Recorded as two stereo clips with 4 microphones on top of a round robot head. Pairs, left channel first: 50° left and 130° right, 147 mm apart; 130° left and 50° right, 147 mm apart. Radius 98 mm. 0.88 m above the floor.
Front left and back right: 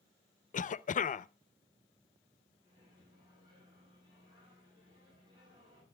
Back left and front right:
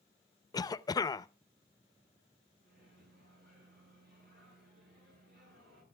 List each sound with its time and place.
0.5 s a cough: 70° left, 0.7 m
2.6 s a microwave: 70° right, 7.5 m